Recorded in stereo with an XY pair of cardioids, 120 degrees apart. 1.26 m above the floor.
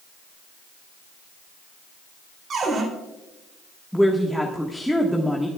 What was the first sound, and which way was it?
A cupboard door, 45° right.